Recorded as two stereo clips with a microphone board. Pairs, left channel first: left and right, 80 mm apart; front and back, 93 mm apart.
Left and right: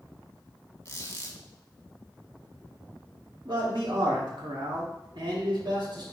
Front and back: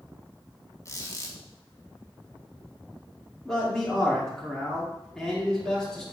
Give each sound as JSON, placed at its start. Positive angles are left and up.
{"t": 0.8, "sound": "a squeak", "azimuth_deg": 45, "distance_m": 1.2}
{"t": 3.5, "sound": "a man speaking", "azimuth_deg": -85, "distance_m": 2.5}